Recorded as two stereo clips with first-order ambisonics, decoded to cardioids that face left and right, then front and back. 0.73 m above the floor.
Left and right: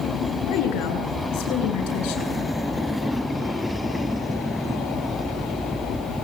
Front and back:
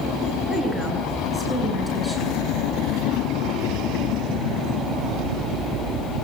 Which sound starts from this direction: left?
A woman speaking, at 0.5 s.